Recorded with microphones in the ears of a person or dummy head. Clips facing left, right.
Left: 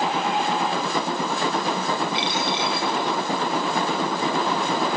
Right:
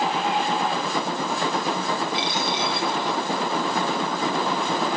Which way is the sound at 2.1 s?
30° right (ahead or behind).